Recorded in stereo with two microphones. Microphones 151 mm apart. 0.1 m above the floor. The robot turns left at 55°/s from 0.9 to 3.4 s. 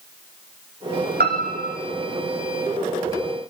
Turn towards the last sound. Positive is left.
turn(degrees=145)